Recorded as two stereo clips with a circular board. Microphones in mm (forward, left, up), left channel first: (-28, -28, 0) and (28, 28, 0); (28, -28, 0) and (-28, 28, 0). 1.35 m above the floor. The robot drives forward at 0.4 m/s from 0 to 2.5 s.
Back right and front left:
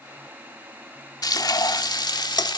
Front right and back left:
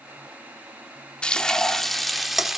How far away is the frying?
About 1.3 m.